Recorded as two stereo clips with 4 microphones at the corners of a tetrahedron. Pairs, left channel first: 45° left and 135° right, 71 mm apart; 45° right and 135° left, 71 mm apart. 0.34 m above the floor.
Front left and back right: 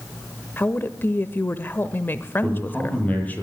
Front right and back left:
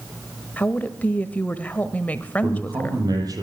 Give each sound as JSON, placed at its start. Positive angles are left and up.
{"t": 0.6, "sound": "a woman speaking", "azimuth_deg": 5, "distance_m": 1.0}
{"t": 2.4, "sound": "a man speaking", "azimuth_deg": 110, "distance_m": 8.0}